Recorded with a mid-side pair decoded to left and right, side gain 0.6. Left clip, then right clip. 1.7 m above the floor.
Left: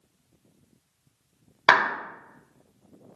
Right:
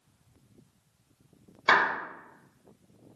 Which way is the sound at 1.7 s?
35° left.